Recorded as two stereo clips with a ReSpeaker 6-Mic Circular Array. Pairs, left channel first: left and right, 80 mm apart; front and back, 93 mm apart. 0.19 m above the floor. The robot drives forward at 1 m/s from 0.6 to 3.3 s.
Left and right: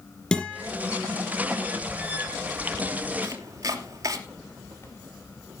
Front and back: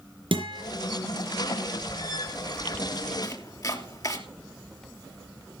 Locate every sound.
0.3 s a guitar: 165° left, 6 m
3.2 s chopping: 45° right, 2.5 m